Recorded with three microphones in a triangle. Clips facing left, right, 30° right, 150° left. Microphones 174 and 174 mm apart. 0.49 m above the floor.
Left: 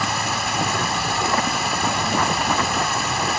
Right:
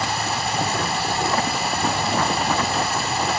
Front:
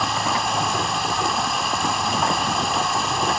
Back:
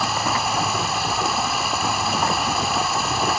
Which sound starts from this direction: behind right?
Running water, at 0.0 s.